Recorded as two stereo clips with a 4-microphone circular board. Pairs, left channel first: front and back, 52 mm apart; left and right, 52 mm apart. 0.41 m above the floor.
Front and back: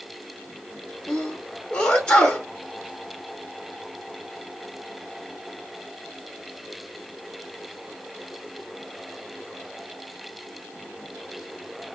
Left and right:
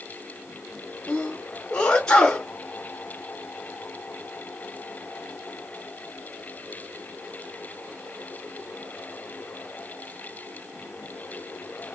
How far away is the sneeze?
About 0.8 m.